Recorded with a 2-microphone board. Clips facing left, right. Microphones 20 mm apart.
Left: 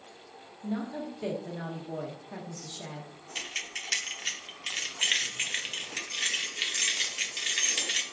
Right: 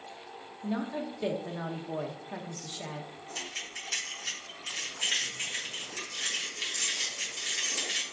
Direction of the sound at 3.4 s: 40° left (ahead or behind).